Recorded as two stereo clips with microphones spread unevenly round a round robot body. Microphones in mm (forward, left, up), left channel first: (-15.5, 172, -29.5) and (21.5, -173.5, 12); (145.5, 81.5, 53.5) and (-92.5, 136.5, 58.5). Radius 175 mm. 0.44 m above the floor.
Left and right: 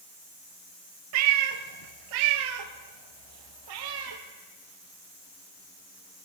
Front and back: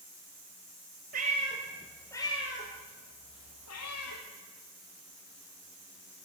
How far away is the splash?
I don't hear a splash.